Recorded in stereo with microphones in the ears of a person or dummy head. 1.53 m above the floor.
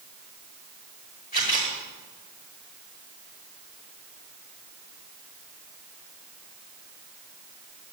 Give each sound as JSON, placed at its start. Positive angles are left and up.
{"t": 1.3, "sound": "a camera shutter", "side_deg": 40, "distance_m": 5.5}